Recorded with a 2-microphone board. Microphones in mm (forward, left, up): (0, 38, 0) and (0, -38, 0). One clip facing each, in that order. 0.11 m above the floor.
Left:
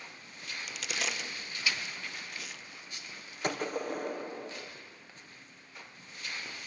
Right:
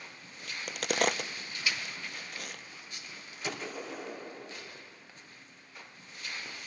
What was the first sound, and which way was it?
A crack, 55° right (ahead or behind).